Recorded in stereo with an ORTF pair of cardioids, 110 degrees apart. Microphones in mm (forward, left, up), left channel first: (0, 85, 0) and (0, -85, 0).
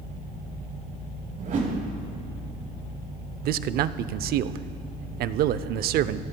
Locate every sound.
1.4 s a whoosh: 50° right, 4 m
3.4 s a man speaking: 65° right, 0.6 m